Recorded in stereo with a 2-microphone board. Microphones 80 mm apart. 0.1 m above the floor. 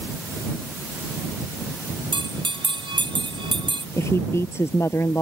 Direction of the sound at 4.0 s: 35° left (ahead or behind).